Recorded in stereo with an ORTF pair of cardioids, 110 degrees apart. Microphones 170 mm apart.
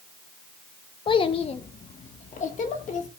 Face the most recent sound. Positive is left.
turn(degrees=50)